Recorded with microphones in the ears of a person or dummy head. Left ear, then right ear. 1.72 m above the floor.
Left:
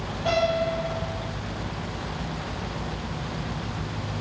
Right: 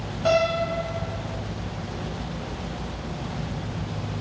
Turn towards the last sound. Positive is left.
turn(degrees=-60)  # may be behind; listen again after turning